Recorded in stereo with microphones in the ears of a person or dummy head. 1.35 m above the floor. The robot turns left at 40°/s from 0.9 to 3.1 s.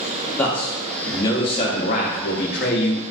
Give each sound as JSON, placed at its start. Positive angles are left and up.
{"t": 0.4, "sound": "a man speaking", "azimuth_deg": 170, "distance_m": 0.6}